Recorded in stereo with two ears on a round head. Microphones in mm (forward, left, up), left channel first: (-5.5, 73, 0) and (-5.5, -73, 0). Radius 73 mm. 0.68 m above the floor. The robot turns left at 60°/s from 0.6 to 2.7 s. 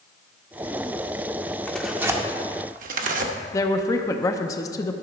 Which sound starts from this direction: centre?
Tearing paper, at 1.7 s.